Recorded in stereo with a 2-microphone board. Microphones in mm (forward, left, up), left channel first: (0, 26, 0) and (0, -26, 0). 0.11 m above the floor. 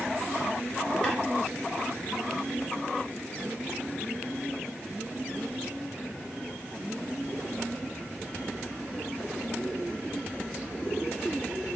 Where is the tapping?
15° left (ahead or behind), 1.8 m.